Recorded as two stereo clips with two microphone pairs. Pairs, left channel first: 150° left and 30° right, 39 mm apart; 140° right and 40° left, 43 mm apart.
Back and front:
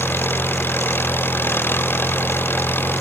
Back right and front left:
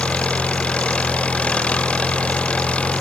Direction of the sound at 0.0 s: 160° left.